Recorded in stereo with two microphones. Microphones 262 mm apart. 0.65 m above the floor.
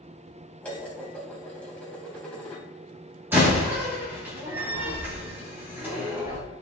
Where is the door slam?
5° right (ahead or behind), 3 m.